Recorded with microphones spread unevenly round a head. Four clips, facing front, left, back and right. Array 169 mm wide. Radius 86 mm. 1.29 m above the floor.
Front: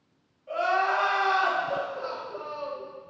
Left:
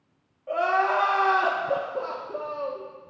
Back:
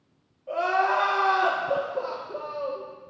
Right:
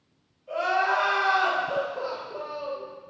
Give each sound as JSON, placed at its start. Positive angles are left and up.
{"t": 0.5, "sound": "crying", "azimuth_deg": 110, "distance_m": 1.5}